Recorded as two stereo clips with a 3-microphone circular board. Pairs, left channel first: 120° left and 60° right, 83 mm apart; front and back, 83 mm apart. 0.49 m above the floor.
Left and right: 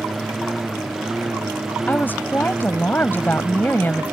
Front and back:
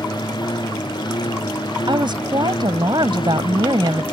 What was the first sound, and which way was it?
A lawn mower, 30° left.